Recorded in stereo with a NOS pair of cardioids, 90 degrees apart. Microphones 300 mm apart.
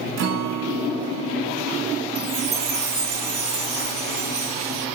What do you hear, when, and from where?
0.2 s a guitar: 60° right, 6.5 m
2.1 s a chime: 55° right, 6.5 m